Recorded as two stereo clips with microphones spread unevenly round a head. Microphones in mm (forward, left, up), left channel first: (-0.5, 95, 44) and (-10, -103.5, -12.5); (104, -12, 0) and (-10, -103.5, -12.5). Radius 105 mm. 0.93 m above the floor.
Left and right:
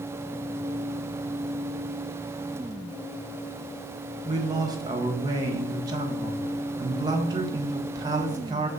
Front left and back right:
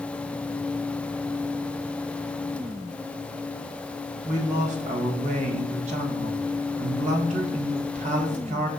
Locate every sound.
4.2 s a man speaking: 145° right, 1.3 m